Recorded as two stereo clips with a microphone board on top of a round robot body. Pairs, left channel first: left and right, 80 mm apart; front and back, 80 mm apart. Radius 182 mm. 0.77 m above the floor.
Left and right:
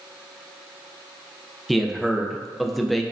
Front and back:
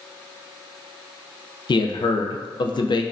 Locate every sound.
1.7 s a man speaking: straight ahead, 0.5 m